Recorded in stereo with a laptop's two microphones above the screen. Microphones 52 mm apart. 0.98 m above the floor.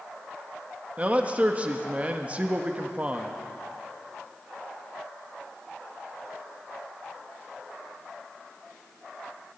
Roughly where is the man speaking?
Right.